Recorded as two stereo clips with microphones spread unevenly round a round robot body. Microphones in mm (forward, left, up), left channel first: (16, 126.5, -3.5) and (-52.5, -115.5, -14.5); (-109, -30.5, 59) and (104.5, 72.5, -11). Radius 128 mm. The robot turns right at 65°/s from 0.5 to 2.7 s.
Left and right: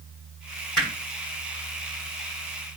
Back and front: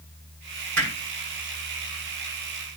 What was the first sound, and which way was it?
Hammering, 15° right.